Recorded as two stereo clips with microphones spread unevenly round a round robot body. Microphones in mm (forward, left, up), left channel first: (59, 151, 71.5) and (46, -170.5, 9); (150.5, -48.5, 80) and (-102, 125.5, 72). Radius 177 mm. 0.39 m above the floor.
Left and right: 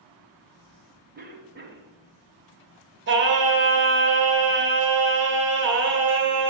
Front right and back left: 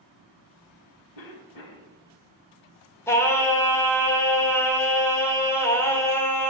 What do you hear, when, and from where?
1.1 s a cough: 35° right, 2.5 m
3.1 s singing: 115° right, 1.8 m